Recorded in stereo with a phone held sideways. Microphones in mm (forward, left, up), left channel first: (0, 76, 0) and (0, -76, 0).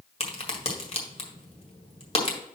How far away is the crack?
About 1.5 m.